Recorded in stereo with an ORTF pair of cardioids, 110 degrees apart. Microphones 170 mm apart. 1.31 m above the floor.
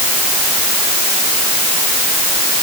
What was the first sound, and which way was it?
Only background noise.